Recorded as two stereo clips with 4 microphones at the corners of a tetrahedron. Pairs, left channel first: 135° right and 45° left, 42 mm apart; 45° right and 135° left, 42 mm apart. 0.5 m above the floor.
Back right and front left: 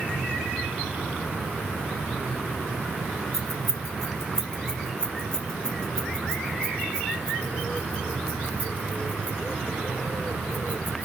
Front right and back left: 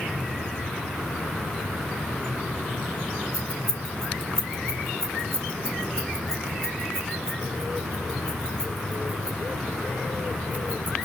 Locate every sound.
3.3 s keys jangling: 140° left, 3 m; by 11.1 s straight behind, 6 m